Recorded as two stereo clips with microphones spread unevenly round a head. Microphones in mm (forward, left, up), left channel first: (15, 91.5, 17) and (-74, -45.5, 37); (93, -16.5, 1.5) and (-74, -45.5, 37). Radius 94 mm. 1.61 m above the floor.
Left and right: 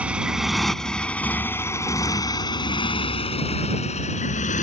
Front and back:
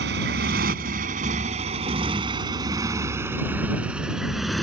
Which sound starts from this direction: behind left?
A motorcycle, at 0.0 s.